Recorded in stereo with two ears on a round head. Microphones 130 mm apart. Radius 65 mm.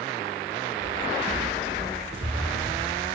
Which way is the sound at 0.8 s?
25° right (ahead or behind).